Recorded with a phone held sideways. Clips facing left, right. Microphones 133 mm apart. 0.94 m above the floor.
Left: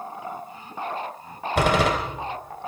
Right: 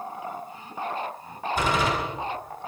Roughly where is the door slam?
Left.